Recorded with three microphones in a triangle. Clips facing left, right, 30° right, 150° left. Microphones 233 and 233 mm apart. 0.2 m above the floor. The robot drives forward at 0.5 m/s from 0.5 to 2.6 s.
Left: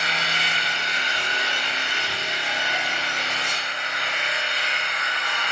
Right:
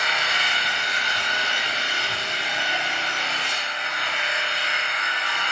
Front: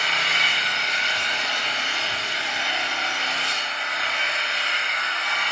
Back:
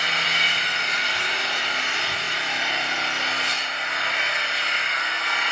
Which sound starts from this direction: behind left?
An engine running, at 0.0 s.